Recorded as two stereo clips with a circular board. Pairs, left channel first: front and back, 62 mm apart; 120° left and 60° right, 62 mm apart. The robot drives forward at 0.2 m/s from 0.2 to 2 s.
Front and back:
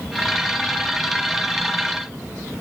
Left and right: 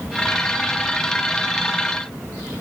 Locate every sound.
Only background noise.